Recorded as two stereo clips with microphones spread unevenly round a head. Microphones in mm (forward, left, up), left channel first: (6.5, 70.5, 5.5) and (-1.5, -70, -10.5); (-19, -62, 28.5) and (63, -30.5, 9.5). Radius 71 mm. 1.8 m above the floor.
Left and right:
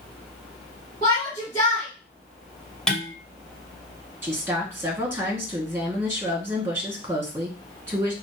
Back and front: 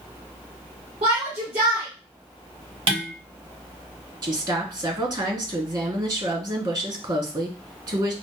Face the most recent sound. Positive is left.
turn(degrees=-20)